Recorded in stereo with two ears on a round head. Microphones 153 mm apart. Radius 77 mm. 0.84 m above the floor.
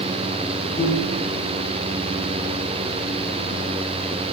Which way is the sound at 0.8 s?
40° left (ahead or behind).